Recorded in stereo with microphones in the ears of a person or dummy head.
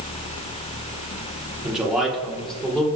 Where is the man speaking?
5° right (ahead or behind), 3 m; by 2.9 s 10° left (ahead or behind), 3.5 m.